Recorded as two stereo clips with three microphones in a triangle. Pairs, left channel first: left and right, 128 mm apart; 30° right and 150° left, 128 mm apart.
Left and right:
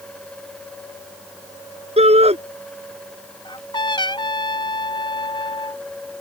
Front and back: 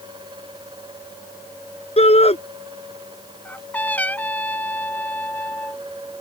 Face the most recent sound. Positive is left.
turn(degrees=45)